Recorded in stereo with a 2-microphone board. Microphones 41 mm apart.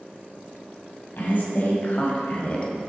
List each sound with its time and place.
1.2 s a woman speaking: 60° left (ahead or behind), 2 m; by 2.7 s 30° left (ahead or behind), 1.3 m